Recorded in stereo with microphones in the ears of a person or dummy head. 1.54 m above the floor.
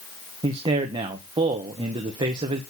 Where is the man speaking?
25° right (ahead or behind), 1.2 m.